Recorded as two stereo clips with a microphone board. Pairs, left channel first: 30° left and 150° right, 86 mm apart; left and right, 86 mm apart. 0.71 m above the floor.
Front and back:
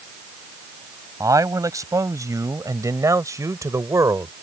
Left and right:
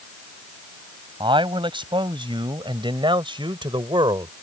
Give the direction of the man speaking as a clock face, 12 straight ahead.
3 o'clock.